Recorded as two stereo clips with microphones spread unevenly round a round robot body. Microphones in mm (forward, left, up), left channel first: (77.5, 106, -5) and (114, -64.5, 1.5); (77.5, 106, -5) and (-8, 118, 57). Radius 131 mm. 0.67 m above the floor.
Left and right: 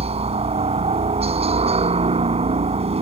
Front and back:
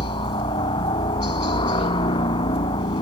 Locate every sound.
0.0 s a helicopter: 25° right